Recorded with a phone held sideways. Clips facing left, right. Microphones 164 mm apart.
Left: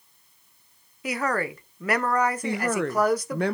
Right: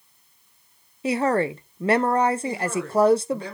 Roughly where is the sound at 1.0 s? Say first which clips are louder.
Right 6 dB; right.